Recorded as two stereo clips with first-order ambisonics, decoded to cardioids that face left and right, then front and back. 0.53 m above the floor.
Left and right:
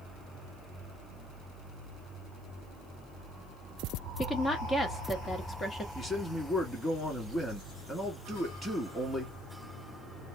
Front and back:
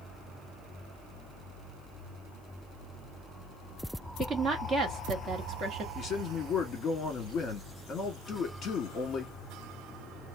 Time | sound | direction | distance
4.2 | a woman speaking | 150° left | 0.9 m
6.0 | a man speaking | 20° left | 1.3 m